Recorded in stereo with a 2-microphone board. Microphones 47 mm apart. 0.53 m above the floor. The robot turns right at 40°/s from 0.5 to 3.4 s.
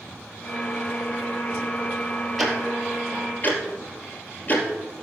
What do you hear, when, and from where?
2.4 s ticking: 5° right (ahead or behind), 2.5 m; by 4.7 s 35° left (ahead or behind), 2.5 m